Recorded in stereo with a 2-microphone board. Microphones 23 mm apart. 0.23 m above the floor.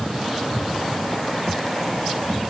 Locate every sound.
Only background noise.